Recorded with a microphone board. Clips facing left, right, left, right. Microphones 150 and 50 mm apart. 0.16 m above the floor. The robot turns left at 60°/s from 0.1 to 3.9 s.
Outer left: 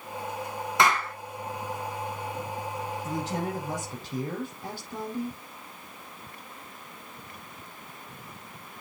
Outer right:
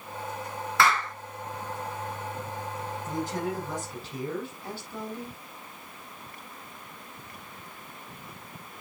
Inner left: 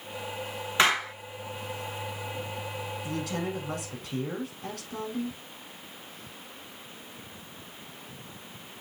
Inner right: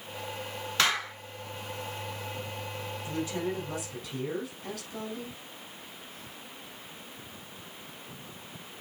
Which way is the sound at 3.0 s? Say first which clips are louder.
Outer right 1 dB, inner right 1 dB; 100° left.